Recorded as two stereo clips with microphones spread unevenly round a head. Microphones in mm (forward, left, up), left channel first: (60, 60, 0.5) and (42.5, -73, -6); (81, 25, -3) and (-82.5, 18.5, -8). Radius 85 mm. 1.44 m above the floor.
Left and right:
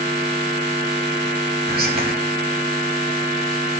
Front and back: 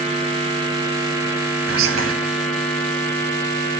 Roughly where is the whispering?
Behind right.